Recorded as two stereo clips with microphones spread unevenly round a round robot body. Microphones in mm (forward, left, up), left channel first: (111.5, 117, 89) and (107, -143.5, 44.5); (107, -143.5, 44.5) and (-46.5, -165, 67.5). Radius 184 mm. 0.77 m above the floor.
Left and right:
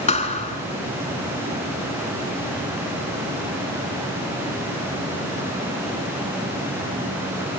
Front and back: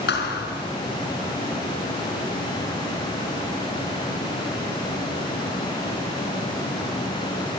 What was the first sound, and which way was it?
A thud, 25° left.